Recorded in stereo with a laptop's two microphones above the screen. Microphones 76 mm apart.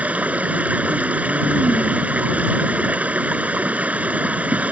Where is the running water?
20° right (ahead or behind).